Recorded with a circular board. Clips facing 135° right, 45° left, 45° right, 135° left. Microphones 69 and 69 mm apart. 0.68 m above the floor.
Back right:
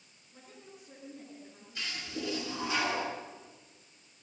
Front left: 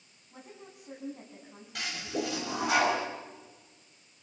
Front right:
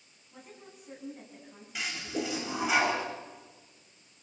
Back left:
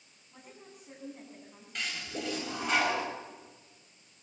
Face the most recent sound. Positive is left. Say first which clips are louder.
# front left 5 dB, front right 3 dB
turn(degrees=40)